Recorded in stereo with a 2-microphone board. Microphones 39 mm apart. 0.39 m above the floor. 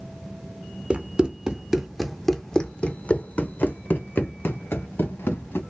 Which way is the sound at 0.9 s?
30° right (ahead or behind).